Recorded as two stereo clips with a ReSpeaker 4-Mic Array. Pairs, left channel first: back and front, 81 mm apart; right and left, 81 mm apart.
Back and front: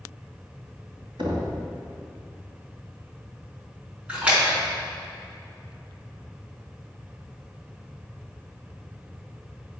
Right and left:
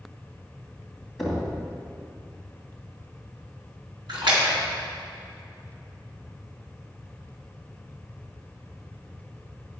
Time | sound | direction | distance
1.2 | knocking | straight ahead | 2 m
4.1 | a splash | 75° left | 3.5 m